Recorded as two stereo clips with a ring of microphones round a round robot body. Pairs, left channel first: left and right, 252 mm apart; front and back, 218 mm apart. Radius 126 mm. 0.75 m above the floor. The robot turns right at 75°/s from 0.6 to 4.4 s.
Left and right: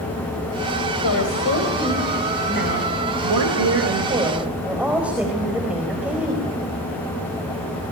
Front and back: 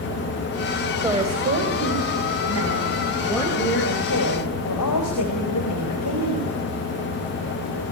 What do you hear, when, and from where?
1.0 s a woman speaking: 105° left, 4.5 m; by 6.5 s 5° right, 4.5 m